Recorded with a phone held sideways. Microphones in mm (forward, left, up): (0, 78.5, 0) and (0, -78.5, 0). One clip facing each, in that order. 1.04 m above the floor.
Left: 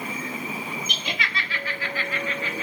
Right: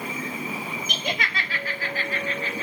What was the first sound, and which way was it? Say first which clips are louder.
Laughter: right 2 dB; 50° right (ahead or behind).